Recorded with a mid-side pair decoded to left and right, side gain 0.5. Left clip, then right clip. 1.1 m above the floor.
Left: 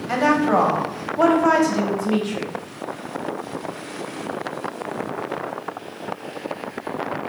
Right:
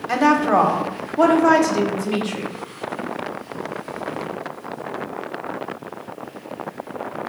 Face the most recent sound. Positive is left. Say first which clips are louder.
# right 2 dB
turn(degrees=-15)